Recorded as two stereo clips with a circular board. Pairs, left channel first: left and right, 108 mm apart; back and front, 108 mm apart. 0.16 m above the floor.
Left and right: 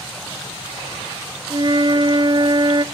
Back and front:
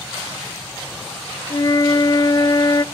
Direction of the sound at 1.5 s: 130° right.